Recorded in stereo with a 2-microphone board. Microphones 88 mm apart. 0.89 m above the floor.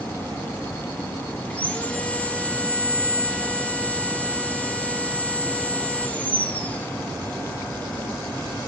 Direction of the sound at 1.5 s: 20° left (ahead or behind).